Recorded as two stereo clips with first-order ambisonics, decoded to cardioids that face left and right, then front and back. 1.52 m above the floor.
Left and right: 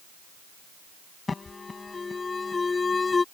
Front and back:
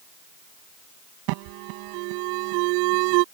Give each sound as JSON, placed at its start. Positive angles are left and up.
{"t": 1.3, "sound": "an alarm", "azimuth_deg": 165}